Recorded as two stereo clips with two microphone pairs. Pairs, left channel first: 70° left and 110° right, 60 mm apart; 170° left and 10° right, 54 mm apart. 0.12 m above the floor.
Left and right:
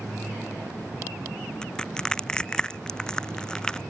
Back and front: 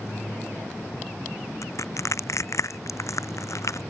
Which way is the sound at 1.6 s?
145° left.